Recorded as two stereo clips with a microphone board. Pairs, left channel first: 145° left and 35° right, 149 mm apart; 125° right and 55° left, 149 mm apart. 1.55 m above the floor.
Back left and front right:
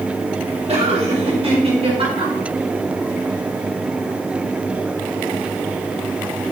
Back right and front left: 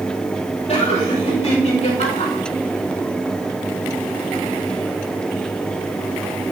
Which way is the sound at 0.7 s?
80° right.